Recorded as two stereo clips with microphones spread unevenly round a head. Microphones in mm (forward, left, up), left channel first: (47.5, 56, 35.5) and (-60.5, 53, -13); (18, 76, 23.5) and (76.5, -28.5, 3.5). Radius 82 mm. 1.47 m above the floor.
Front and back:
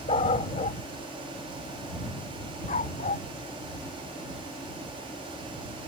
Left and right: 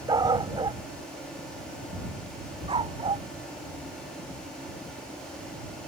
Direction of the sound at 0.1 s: Straight ahead.